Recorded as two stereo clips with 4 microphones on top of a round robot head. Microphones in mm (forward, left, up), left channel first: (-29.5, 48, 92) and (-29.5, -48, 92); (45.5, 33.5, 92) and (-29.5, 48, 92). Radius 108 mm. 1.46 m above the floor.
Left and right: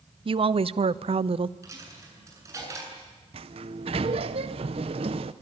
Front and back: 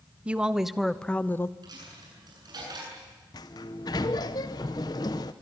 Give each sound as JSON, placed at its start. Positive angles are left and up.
{"t": 0.2, "sound": "a woman speaking", "azimuth_deg": -115, "distance_m": 1.0}
{"t": 1.6, "sound": "a dropped coin", "azimuth_deg": -150, "distance_m": 8.5}
{"t": 3.3, "sound": "a sliding door", "azimuth_deg": -55, "distance_m": 0.7}